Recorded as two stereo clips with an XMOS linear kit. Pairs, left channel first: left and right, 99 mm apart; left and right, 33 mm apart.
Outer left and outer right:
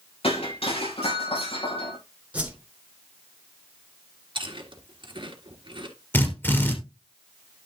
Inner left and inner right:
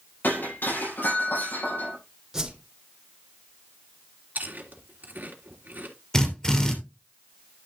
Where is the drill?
20° left (ahead or behind), 3 m.